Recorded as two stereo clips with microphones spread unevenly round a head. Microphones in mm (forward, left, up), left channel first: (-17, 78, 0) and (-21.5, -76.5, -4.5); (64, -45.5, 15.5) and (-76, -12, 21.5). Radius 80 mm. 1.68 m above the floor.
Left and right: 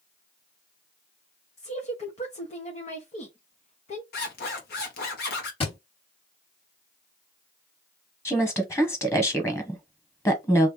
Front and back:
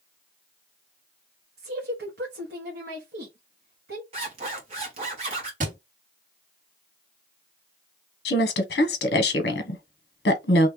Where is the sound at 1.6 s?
135° left, 1.1 m.